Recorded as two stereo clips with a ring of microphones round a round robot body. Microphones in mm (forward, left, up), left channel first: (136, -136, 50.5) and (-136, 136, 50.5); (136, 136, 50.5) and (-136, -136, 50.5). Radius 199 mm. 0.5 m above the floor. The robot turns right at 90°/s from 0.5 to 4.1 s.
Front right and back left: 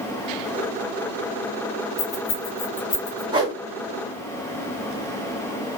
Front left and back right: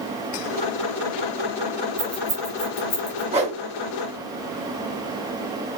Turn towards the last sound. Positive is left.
turn(degrees=-105)